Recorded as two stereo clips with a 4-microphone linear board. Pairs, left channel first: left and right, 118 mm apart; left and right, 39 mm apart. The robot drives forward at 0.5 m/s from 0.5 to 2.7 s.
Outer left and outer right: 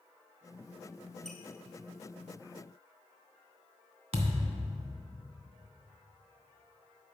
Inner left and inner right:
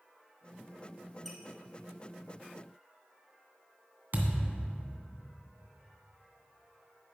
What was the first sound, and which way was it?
A squeak, 5° left (ahead or behind).